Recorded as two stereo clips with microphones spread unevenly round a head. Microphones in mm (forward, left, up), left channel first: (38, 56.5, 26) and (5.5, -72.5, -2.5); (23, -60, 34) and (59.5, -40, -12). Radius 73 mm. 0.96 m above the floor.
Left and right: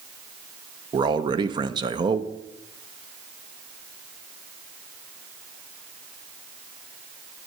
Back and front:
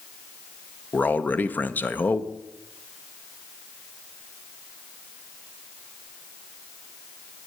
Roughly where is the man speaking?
Ahead right.